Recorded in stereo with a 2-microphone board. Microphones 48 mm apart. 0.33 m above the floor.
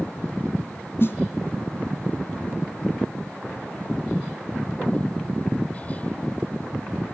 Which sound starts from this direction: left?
A snare drum, at 1.0 s.